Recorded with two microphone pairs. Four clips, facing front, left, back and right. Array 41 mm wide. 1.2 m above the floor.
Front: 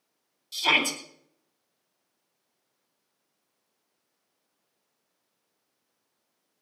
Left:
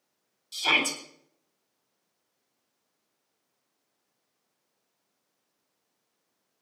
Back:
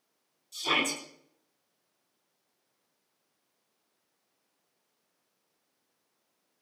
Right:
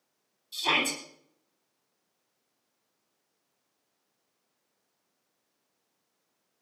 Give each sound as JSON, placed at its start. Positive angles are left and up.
{"t": 0.5, "sound": "a shout", "azimuth_deg": 35, "distance_m": 8.5}